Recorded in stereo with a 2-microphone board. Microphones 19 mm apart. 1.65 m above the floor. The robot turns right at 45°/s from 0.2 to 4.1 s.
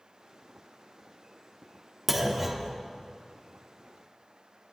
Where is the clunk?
Centre (ahead or behind), 1.2 m; by 2.8 s 10° right (ahead or behind), 1.2 m.